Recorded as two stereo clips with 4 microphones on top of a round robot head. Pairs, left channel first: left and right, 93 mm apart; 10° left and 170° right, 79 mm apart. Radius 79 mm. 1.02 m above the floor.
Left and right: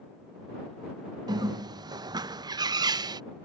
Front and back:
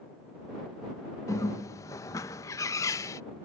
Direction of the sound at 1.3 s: 45° right.